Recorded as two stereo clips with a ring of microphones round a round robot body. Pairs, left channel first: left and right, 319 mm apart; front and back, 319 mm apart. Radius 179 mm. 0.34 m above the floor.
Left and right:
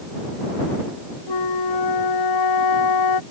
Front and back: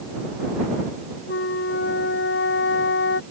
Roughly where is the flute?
Ahead left.